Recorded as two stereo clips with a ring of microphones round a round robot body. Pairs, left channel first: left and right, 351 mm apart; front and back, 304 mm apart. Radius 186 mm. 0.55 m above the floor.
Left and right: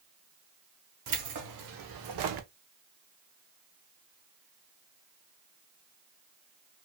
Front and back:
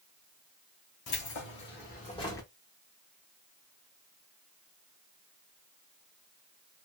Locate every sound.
1.1 s keys jangling: 50° right, 1.3 m; by 2.5 s 85° right, 0.7 m